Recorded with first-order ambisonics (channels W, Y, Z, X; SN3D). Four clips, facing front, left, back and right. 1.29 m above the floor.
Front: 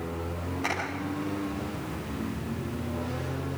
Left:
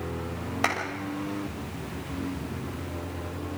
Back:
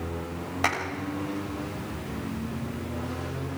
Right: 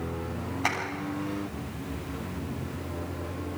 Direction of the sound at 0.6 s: 125° left.